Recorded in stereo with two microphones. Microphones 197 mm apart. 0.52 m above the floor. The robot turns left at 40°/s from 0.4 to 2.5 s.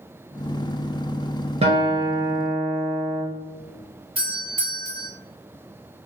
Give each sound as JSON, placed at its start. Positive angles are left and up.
{"t": 1.6, "sound": "a guitar", "azimuth_deg": -145, "distance_m": 1.1}
{"t": 4.2, "sound": "a doorbell", "side_deg": -30, "distance_m": 1.6}